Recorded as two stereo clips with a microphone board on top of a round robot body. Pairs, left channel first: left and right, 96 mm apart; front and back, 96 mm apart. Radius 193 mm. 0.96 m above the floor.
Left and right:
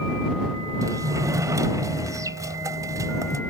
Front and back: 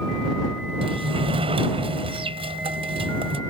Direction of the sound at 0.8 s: 150° right.